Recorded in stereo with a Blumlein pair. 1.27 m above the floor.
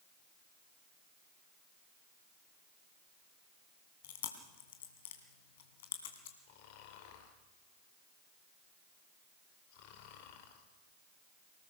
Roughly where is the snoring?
Ahead left.